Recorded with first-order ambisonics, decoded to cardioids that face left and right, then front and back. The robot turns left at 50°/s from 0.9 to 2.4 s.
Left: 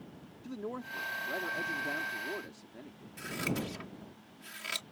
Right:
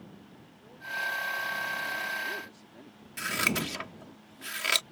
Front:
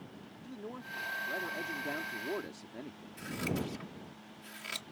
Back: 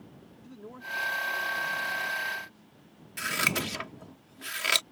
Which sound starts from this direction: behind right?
Scissors, at 3.2 s.